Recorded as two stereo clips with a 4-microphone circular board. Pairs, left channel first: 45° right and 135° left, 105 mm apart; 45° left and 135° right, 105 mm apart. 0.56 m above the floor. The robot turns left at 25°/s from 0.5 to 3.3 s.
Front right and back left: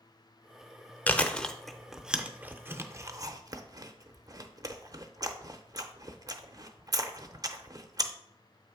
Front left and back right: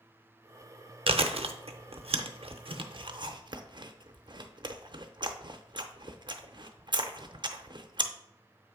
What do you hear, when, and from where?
1.1 s chewing: 120° right, 0.6 m; by 8.1 s 175° right, 0.6 m